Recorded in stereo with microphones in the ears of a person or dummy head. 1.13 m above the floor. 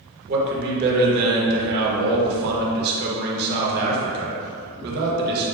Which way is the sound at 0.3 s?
55° right (ahead or behind).